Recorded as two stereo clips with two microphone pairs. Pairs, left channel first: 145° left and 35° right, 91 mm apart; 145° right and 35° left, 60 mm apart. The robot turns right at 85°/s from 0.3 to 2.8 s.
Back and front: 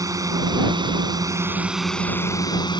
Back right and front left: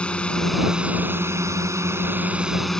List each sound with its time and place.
0.0 s a drone: 75° right; by 2.8 s 140° left